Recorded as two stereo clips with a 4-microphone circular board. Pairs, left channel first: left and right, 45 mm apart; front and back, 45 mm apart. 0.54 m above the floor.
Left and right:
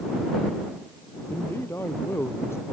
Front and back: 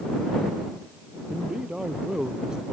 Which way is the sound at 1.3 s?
110° left.